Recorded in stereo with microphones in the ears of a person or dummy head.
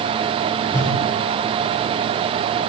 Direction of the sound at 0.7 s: 25° left (ahead or behind).